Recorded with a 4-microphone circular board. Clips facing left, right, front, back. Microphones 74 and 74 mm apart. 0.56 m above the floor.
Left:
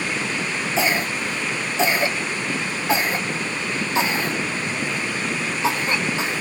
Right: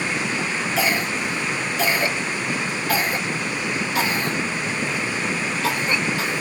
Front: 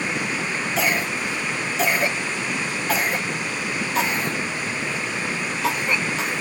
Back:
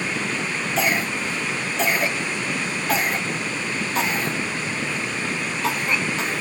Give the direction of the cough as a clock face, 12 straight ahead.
9 o'clock.